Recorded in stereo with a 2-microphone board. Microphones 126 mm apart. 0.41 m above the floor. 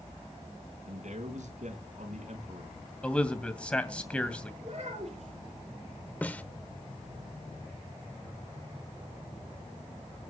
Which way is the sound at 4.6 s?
55° right (ahead or behind).